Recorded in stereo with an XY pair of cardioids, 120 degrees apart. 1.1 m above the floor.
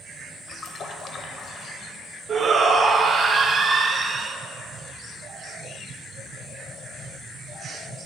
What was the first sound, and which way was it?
A splash, 45° left.